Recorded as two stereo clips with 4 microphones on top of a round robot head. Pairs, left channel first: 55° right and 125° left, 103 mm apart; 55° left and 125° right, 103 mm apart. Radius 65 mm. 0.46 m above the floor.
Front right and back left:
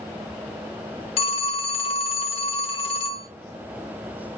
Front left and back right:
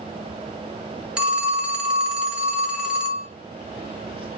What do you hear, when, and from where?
1.2 s a phone ringing: 45° right, 0.9 m